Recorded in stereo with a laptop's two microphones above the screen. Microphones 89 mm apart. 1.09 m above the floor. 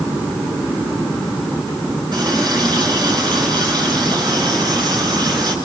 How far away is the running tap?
About 9.5 m.